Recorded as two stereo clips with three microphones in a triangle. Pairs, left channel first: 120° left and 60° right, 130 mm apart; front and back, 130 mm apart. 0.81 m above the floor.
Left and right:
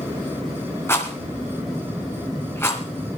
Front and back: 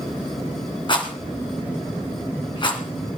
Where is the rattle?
50° left, 2.0 m.